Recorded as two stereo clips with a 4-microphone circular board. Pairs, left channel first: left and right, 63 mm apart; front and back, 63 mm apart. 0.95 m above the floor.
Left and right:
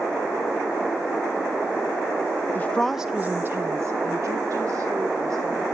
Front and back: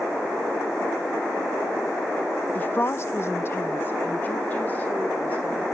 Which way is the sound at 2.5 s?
50° left.